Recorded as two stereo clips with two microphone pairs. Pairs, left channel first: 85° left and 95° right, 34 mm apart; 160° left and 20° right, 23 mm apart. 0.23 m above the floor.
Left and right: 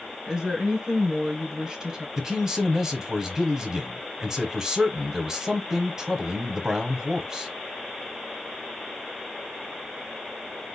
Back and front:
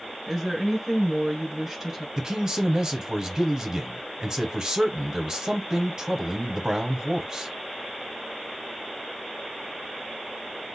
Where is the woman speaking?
65° right, 1.7 m.